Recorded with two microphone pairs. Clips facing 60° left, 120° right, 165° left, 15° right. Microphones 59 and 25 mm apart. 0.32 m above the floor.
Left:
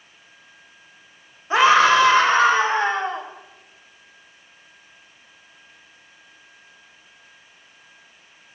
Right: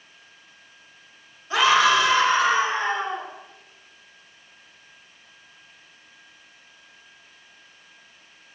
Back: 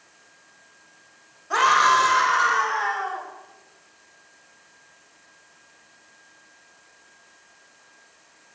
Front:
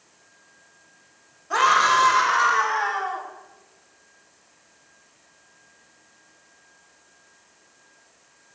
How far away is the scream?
About 1.3 m.